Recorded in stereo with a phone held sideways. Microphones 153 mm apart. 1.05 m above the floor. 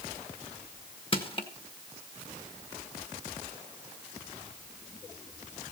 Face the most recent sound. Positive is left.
turn(degrees=35)  # may be behind; listen again after turning